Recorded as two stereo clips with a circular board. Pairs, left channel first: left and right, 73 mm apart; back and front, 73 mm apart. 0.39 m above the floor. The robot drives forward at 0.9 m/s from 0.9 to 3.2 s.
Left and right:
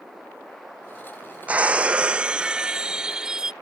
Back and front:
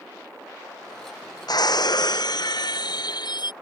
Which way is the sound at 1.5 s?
160° right.